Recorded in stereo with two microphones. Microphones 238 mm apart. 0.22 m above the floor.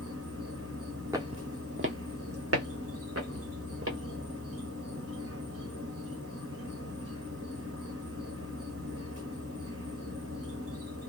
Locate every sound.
0.0 s an insect: 85° right, 1.3 m
1.1 s footsteps: 15° right (ahead or behind), 0.6 m; by 4.0 s 75° right (ahead or behind), 1.5 m